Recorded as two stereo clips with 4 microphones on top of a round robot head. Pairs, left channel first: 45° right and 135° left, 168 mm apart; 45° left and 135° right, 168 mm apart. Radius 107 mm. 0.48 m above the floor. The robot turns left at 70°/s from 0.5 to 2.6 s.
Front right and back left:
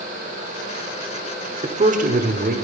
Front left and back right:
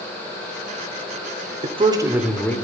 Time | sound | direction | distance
1.6 | a man speaking | 175° right | 1.3 m